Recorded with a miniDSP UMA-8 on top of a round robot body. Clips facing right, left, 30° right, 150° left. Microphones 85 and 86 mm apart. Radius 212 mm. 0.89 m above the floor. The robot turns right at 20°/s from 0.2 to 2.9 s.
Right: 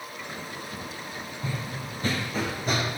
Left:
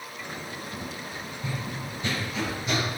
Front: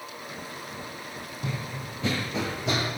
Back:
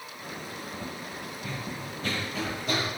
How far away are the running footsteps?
About 2 m.